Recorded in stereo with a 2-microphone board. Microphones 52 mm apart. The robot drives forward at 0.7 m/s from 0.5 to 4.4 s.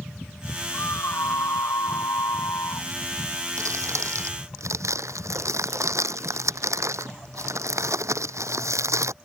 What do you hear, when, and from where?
0.7 s a scream: 55° left (ahead or behind); by 2.9 s 70° left (ahead or behind)
3.6 s crumpling: 70° right (ahead or behind)